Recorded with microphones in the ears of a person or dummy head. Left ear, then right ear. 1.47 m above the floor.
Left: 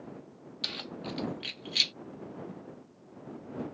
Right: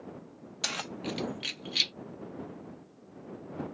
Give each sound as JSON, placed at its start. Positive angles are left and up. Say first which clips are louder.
{"t": 0.6, "sound": "keys jangling", "louder": "right 2 dB", "side_deg": -35}